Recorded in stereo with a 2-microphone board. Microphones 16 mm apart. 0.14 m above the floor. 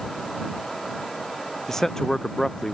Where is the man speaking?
30° left (ahead or behind).